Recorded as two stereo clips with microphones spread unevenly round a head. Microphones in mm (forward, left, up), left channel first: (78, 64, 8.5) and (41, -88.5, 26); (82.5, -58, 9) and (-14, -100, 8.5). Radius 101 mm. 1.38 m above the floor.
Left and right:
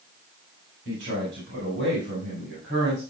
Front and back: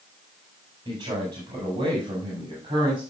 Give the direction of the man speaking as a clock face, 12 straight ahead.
4 o'clock.